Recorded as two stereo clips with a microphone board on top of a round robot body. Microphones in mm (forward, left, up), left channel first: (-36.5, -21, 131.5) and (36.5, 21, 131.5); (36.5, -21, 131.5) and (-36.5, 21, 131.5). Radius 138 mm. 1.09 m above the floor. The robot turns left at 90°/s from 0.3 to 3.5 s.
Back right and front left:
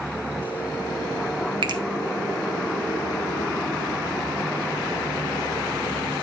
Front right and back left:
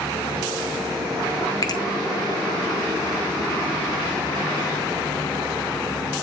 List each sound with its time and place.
1.6 s a finger snap: 15° left, 1.1 m; by 1.8 s 5° right, 1.1 m